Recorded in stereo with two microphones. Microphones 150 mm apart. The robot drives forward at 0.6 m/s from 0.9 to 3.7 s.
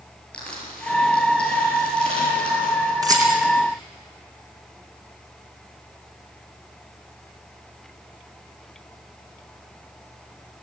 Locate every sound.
0.3 s crushing: 10° left (ahead or behind), 9 m; by 2.9 s 5° left (ahead or behind), 10 m
3.0 s a rattle: 25° right (ahead or behind), 5 m